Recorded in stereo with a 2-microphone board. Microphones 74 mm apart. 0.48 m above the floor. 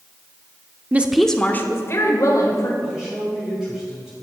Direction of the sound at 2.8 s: 5° right (ahead or behind).